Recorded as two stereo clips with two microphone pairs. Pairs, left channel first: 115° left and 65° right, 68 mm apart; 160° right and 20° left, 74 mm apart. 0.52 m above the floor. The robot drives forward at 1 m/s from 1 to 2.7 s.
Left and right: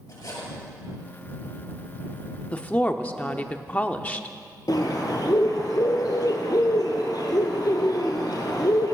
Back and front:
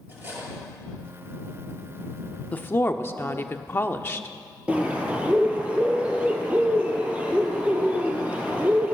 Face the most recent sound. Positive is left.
turn(degrees=95)